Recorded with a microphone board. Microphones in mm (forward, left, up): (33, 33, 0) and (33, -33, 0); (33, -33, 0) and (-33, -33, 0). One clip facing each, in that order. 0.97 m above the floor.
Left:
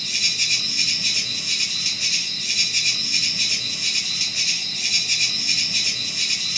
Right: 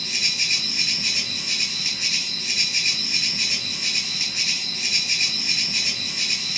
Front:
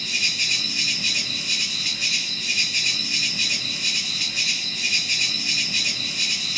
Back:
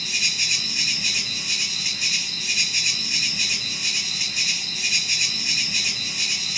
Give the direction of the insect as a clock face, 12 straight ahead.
4 o'clock.